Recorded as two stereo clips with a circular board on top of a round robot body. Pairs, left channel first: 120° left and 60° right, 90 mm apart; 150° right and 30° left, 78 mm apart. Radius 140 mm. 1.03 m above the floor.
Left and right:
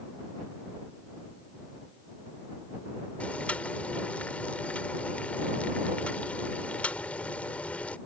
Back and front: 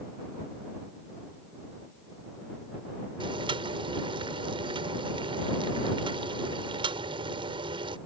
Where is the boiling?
45° left.